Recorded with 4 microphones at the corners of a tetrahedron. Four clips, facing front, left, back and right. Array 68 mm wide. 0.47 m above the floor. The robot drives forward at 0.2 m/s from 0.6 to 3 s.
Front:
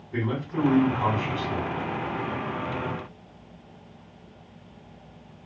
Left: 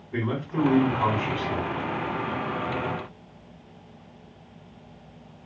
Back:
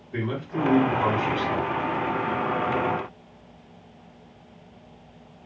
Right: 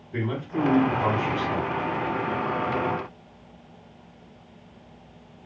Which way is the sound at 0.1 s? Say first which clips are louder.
Left 1 dB, even; 85° left.